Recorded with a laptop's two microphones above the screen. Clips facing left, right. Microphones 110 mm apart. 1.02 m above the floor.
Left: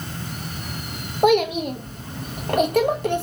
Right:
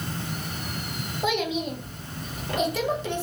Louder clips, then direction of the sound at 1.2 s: Left 9 dB; 55° left (ahead or behind).